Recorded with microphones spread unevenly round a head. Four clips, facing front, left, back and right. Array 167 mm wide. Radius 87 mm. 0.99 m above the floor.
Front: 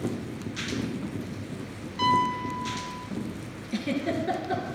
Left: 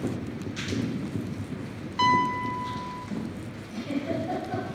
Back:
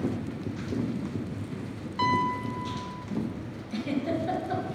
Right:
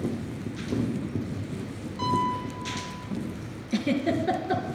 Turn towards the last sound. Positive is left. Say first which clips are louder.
# right 5 dB, front 1 dB
turn(degrees=-65)